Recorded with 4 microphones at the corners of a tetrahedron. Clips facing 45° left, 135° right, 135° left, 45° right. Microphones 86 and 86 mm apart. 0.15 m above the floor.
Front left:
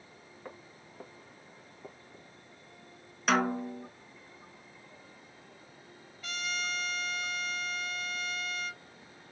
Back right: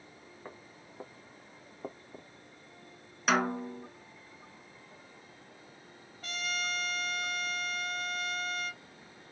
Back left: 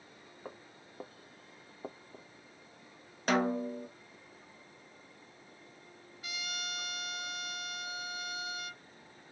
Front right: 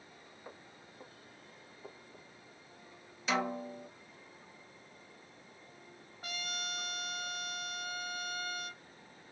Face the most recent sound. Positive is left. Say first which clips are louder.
# even, even
turn(degrees=-85)